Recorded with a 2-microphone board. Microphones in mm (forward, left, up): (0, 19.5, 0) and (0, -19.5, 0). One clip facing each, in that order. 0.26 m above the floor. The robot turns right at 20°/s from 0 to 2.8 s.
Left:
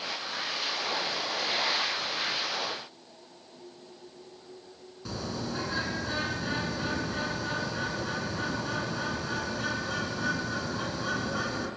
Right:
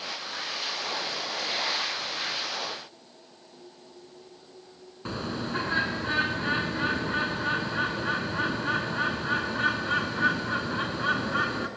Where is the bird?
40° right (ahead or behind), 3.5 m.